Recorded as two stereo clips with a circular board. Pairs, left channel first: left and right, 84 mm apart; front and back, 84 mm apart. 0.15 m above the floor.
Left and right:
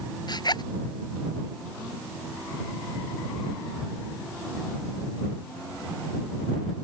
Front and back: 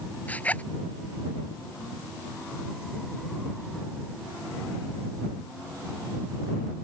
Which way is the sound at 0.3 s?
70° left.